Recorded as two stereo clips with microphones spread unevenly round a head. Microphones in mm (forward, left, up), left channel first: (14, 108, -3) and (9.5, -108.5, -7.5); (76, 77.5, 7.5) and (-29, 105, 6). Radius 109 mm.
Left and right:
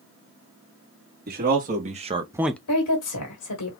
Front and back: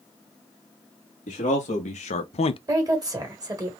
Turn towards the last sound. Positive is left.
turn(degrees=110)